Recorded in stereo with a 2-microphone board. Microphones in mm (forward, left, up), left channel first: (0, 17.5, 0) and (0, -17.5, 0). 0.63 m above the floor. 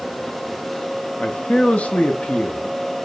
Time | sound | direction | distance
1.2 | a man speaking | 40° left (ahead or behind) | 0.6 m